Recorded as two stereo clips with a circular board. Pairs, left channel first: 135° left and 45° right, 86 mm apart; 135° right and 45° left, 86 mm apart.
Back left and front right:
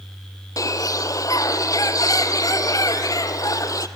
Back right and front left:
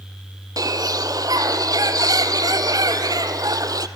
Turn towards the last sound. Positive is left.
turn(degrees=90)